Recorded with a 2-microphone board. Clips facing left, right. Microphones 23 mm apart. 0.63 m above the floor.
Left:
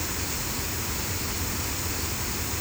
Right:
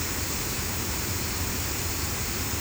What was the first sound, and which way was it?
Only background noise.